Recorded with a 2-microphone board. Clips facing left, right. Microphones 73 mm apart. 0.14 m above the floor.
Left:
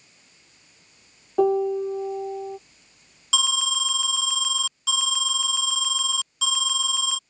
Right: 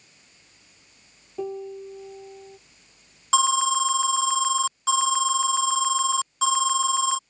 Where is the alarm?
40° right (ahead or behind).